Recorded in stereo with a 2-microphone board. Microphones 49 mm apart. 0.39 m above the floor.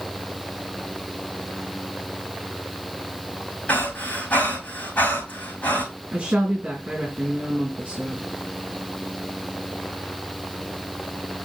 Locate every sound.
3.7 s breathing: 30° left (ahead or behind), 7 m
6.1 s a woman speaking: 30° right (ahead or behind), 4 m